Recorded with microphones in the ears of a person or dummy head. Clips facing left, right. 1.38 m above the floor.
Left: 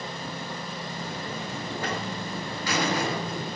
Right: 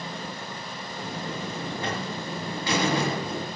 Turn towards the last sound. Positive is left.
turn(degrees=-25)  # may be behind; listen again after turning